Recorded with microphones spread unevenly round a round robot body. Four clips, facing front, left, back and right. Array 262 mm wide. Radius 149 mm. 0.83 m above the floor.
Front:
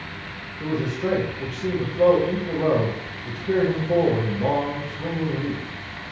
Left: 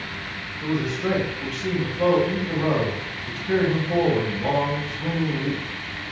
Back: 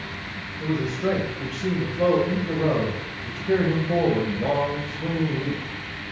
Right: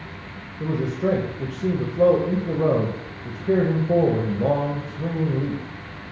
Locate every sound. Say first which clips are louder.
0.6 s a man speaking: right 1 dB, even; 90° right, 0.6 m